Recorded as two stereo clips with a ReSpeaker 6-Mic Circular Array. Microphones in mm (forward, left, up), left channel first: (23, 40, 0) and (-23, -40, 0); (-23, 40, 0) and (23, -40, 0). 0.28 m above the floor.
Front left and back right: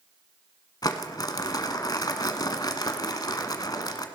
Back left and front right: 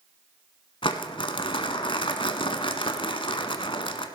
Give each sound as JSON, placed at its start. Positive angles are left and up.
{"t": 0.8, "sound": "crumpling", "azimuth_deg": 100, "distance_m": 1.0}